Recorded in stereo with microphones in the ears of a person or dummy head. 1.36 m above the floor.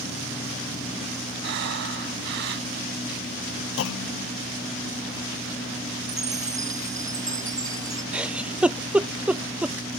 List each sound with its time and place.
1.4 s breathing: 60° right (ahead or behind)
3.8 s a clunk: 65° left (ahead or behind)
6.1 s a chime: 15° right (ahead or behind)
8.1 s a giggle: 5° right (ahead or behind)